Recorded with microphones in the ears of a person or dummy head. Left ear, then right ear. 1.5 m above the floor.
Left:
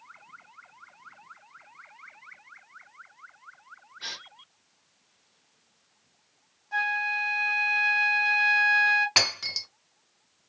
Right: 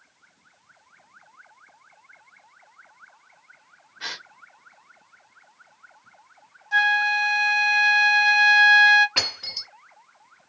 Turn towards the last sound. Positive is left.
turn(degrees=60)  # may be behind; listen again after turning